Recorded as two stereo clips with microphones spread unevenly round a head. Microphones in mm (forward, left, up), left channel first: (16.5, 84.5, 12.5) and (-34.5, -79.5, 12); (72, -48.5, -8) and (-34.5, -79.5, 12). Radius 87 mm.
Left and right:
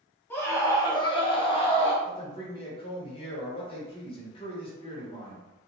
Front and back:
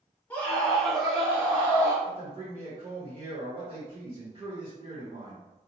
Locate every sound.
0.3 s a scream: 10° left, 0.7 m; by 1.9 s 115° left, 0.9 m
2.0 s a man speaking: 130° left, 1.1 m